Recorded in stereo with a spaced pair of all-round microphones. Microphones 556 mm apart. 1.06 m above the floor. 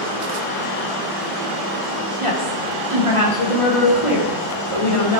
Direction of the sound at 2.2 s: 60° right (ahead or behind).